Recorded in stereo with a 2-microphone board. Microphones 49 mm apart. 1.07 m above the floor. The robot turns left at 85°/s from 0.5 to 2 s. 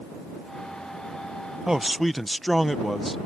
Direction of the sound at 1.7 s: 10° right (ahead or behind).